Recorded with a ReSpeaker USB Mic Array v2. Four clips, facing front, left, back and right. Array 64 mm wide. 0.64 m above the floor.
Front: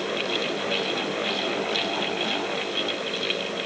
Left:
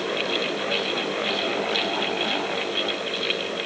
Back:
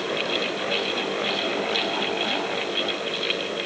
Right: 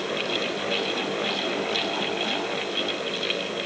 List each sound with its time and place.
Only background noise.